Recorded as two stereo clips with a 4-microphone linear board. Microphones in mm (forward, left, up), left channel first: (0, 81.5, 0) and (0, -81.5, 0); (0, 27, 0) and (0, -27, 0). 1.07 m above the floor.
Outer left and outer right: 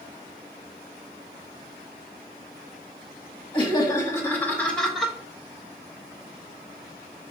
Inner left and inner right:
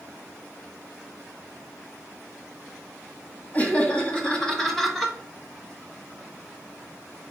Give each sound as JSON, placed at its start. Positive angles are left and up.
{"t": 3.5, "sound": "laughter", "side_deg": 30, "distance_m": 1.9}